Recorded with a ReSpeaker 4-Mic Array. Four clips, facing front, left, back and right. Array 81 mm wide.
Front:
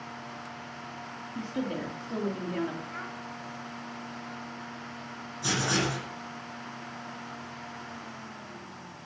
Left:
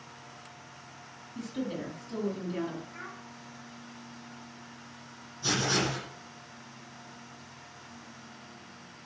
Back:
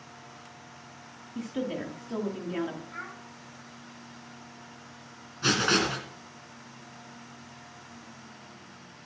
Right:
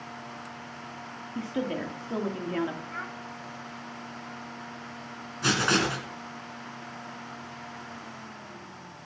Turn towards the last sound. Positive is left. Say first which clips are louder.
# right 4 dB, back 3 dB
turn(degrees=-120)